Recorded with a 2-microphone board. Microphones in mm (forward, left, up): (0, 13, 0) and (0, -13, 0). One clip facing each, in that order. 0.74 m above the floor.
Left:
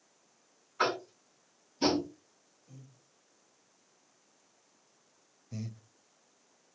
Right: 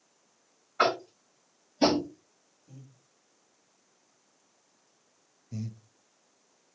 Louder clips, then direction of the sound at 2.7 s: Right 3 dB; 20° right (ahead or behind).